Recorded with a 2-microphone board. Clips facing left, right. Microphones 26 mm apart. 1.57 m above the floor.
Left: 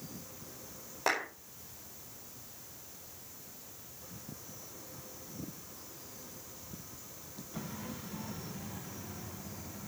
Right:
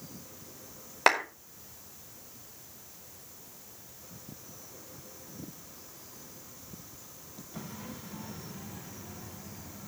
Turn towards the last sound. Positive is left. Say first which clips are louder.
# right 8 dB
turn(degrees=-85)